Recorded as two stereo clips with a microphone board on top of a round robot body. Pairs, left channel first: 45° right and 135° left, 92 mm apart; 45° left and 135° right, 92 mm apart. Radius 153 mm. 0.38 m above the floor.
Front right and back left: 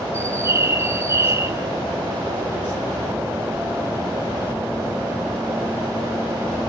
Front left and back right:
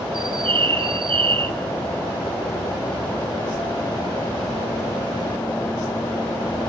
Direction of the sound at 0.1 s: 160° right.